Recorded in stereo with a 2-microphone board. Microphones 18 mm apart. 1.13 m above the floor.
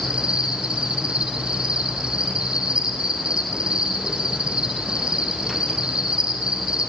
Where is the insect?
65° right (ahead or behind), 9.5 m.